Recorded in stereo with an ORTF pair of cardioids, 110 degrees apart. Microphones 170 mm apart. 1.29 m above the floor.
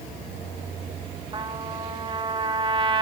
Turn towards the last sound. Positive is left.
turn(degrees=-30)